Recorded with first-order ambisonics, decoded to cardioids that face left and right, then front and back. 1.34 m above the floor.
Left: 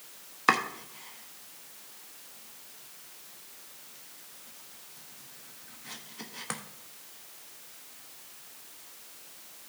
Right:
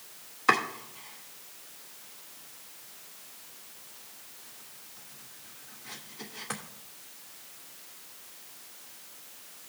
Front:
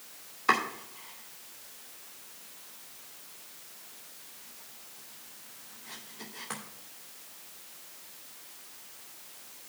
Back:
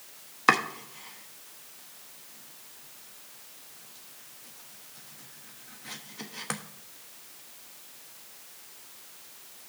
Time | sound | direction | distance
0.5 | chopping | 150° left | 1.1 m